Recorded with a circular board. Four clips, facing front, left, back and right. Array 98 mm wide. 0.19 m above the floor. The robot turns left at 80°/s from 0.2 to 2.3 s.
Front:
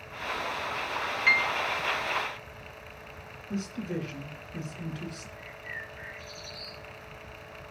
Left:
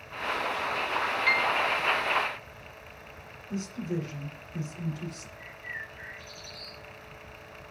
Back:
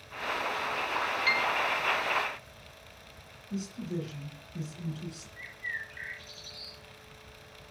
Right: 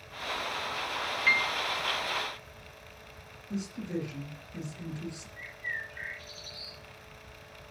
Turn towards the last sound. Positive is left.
turn(degrees=-140)